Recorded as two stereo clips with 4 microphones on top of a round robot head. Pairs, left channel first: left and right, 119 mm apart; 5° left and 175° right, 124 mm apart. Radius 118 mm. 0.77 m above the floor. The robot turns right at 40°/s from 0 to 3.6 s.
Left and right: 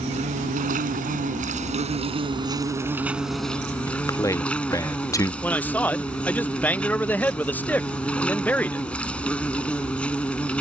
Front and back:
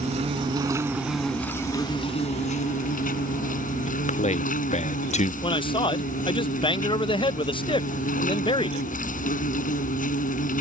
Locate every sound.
0.0 s an insect: 135° right; by 10.6 s 10° left
3.9 s a man speaking: 25° left
5.4 s a man speaking: 20° left